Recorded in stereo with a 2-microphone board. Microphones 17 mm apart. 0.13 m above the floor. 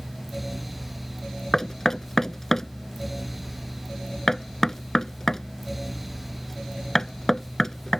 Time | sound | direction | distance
1.5 | knocking | 30° left (ahead or behind) | ?